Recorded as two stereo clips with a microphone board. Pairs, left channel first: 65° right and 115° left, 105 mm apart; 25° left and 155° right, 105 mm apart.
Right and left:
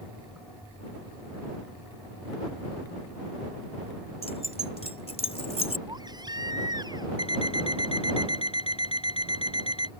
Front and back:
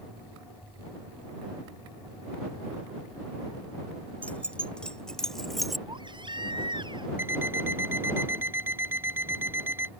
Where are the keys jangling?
55° right; by 5.8 s 70° right.